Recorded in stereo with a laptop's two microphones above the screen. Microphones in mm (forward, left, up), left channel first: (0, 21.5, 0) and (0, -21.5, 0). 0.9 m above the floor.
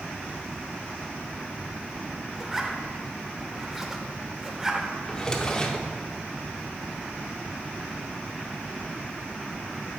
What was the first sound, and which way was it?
A zipper, 10° right (ahead or behind).